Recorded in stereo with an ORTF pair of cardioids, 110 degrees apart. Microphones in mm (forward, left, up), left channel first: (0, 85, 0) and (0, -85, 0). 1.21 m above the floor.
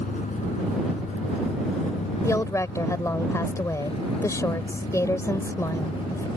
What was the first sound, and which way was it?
A vehicle, 50° left.